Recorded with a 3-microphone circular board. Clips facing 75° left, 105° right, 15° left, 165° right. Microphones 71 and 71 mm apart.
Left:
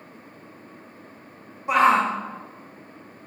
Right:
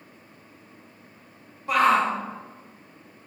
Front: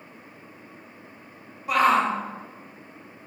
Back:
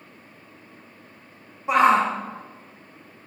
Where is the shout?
135° left, 0.7 m.